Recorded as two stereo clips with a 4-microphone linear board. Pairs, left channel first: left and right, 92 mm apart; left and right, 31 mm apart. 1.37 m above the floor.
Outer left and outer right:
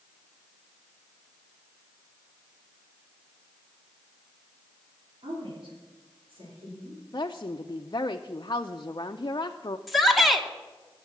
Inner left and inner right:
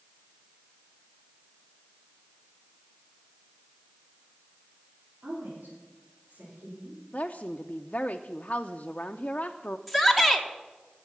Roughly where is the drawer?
No drawer in this recording.